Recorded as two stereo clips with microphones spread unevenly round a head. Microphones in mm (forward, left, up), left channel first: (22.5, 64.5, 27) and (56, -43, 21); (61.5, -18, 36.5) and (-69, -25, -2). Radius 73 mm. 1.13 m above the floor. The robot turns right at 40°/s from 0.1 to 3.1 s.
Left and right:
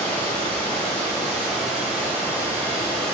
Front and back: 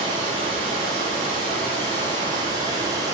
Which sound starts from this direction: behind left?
Running water, at 0.0 s.